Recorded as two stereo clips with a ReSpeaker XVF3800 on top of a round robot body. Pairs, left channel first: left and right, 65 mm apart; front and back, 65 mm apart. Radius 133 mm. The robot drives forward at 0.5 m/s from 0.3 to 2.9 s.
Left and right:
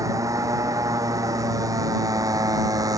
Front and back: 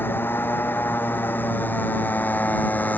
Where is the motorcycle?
55° right; by 3.0 s 65° right.